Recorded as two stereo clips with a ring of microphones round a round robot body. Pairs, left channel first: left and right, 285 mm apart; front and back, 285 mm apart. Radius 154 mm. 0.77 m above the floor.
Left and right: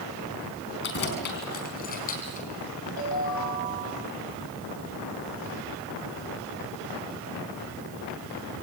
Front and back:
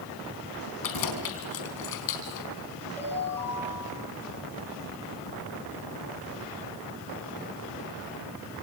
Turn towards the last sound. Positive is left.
turn(degrees=85)